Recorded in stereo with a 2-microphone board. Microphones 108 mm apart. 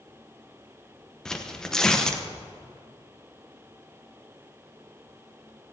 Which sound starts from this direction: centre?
Tearing paper, at 1.2 s.